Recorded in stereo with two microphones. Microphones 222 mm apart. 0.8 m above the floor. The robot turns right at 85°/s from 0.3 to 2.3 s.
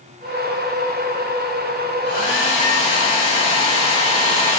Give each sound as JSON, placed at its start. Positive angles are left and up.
{"t": 2.0, "sound": "a hair dryer", "side_deg": 50, "distance_m": 1.5}